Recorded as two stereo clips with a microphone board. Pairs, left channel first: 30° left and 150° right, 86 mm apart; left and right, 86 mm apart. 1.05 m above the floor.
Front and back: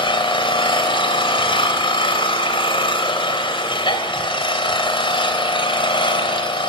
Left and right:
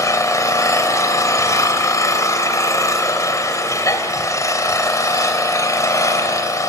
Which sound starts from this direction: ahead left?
An engine running, at 0.0 s.